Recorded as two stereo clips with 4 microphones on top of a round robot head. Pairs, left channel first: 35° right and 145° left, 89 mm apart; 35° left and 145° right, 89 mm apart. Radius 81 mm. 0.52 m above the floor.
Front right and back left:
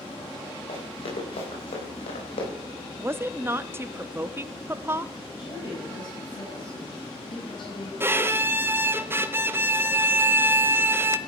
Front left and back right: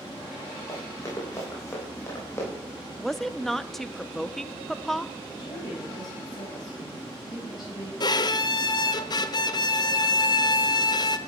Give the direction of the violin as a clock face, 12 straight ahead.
9 o'clock.